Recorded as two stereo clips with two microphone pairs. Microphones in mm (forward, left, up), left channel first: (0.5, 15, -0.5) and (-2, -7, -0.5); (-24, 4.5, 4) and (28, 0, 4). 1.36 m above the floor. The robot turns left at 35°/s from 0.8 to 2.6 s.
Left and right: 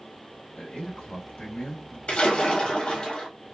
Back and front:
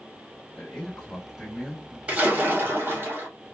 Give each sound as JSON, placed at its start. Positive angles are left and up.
{"t": 0.6, "sound": "a man speaking", "azimuth_deg": 105, "distance_m": 2.5}
{"t": 2.1, "sound": "a splash", "azimuth_deg": 60, "distance_m": 1.9}